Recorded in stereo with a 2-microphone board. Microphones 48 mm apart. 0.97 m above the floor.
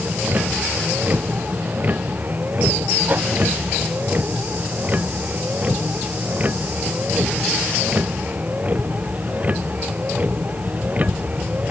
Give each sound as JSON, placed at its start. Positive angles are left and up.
{"t": 0.0, "sound": "a vehicle", "side_deg": -40}
{"t": 3.1, "sound": "a whoosh", "side_deg": -45}